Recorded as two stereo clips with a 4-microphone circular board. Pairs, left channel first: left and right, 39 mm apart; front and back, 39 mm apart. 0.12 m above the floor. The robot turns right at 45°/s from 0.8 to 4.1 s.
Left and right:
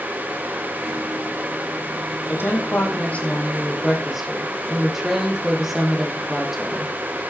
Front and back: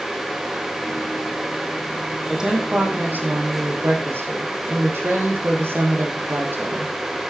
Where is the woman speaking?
110° left, 5.5 m; by 6.9 s 170° right, 5.5 m.